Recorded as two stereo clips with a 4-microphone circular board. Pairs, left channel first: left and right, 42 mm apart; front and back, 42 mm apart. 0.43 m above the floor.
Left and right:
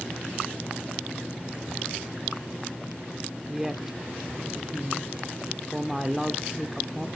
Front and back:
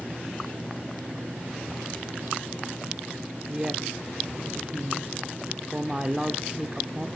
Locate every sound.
3.5 s a woman speaking: 150° right, 0.8 m